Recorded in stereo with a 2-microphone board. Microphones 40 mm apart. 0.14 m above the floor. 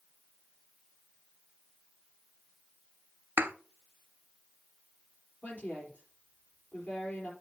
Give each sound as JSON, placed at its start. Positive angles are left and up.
{"t": 3.4, "sound": "a thud", "side_deg": -65, "distance_m": 0.6}
{"t": 5.4, "sound": "a woman speaking", "side_deg": 35, "distance_m": 4.0}